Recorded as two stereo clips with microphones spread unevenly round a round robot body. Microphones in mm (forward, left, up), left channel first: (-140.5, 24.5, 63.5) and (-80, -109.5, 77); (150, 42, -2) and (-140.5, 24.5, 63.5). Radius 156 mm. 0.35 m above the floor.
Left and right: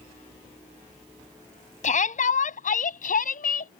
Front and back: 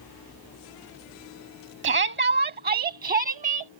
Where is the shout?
130° left; by 3.7 s 115° left.